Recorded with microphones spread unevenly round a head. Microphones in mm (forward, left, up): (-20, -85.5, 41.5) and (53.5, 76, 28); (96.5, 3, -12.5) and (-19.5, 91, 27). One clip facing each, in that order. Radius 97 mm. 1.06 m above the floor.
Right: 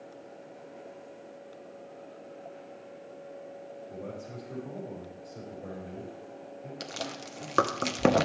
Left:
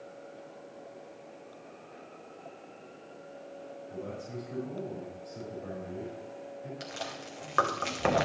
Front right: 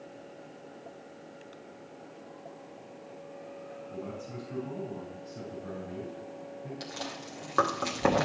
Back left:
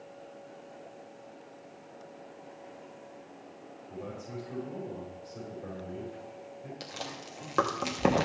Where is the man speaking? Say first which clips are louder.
Left 2 dB, back left 1 dB; 170° left, 4.5 m.